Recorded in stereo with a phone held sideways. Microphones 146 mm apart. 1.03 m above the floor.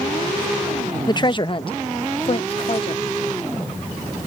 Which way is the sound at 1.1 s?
25° left (ahead or behind).